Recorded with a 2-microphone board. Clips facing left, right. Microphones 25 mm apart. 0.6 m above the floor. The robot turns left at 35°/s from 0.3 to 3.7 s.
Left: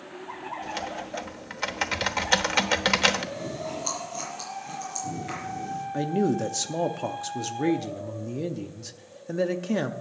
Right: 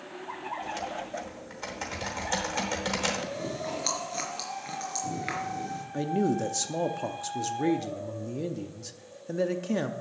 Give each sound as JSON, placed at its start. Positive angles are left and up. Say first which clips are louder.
{"t": 0.6, "sound": "typing on a keyboard", "louder": "left 1 dB", "azimuth_deg": 140, "distance_m": 1.0}
{"t": 3.3, "sound": "chewing", "louder": "even", "side_deg": -55, "distance_m": 3.5}
{"t": 5.9, "sound": "a man speaking", "louder": "left 2 dB", "side_deg": 15, "distance_m": 0.6}